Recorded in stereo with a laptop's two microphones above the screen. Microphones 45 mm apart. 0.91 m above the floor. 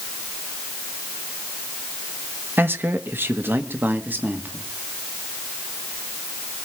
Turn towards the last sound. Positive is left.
turn(degrees=-40)  # may be behind; listen again after turning